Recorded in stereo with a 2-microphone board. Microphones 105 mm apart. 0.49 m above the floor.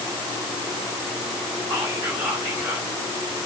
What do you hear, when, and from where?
1.7 s whispering: 35° right (ahead or behind), 4 m